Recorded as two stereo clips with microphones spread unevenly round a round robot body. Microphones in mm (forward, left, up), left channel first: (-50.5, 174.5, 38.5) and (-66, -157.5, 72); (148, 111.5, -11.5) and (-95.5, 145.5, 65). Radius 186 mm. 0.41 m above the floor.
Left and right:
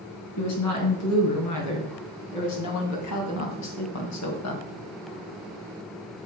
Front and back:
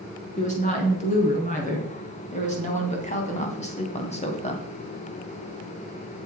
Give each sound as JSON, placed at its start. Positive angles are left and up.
{"t": 0.4, "sound": "a woman speaking", "azimuth_deg": 50, "distance_m": 4.5}